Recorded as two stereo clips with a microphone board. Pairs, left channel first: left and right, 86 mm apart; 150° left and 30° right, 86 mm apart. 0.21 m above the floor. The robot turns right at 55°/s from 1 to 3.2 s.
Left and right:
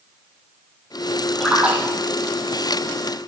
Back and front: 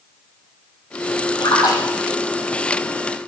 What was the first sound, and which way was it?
A splash, straight behind.